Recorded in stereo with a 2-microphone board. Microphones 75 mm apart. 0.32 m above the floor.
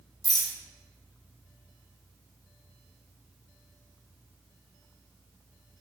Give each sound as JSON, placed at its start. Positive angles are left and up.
{"t": 0.2, "sound": "a rattle", "side_deg": 60, "distance_m": 3.0}